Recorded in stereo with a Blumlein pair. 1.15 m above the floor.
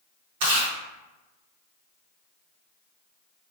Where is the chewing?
50° right, 1.7 m.